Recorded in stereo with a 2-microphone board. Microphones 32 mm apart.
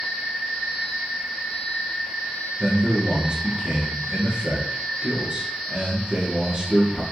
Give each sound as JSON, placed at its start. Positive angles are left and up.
{"t": 2.6, "sound": "a man speaking", "side_deg": -30, "distance_m": 1.2}